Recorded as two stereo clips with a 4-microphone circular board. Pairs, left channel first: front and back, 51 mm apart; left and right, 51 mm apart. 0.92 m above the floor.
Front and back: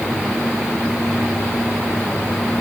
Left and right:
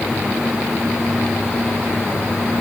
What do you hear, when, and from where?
Only background noise.